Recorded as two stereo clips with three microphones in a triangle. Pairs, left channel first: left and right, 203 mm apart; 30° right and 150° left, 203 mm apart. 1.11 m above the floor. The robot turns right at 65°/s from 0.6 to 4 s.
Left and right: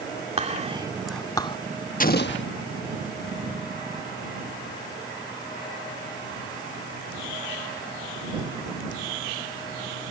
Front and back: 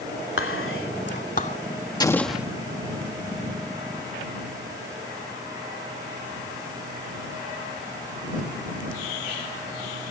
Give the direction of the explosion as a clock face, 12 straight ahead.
11 o'clock.